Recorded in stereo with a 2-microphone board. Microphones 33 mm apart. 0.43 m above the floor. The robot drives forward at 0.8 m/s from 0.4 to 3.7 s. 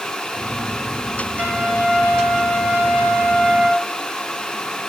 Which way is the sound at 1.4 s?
60° right (ahead or behind).